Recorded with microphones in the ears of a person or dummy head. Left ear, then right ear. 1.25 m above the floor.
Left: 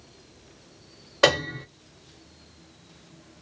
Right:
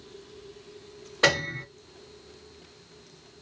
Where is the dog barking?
No dog barking in this recording.